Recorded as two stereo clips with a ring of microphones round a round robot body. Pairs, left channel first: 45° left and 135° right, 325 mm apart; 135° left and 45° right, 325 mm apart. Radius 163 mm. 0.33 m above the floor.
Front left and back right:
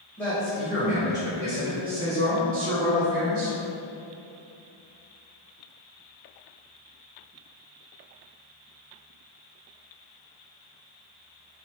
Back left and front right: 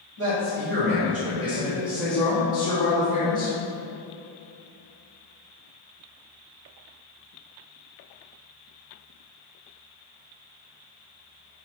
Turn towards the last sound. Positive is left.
turn(degrees=-170)